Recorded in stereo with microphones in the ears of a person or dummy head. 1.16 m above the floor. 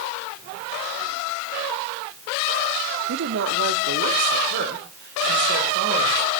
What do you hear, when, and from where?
3.1 s a woman speaking: 70° right (ahead or behind), 1.7 m; by 6.3 s 55° right (ahead or behind), 5 m